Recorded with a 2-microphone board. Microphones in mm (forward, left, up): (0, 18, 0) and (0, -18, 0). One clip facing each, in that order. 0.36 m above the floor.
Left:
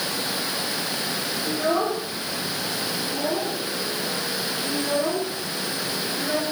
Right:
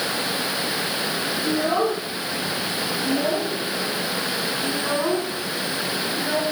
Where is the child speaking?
85° right, 7.5 m; by 6.4 s 20° right (ahead or behind), 2 m.